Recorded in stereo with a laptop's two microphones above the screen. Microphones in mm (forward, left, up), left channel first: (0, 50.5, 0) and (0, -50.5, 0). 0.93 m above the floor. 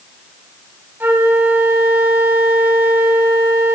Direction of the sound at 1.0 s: 20° right (ahead or behind).